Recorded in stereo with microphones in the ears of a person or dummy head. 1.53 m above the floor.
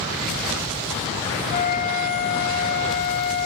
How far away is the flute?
About 0.7 m.